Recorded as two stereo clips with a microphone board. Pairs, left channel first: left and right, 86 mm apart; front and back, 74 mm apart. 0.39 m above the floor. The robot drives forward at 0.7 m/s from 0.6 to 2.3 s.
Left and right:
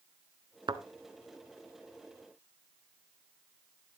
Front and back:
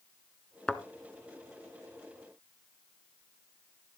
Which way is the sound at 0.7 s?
80° right.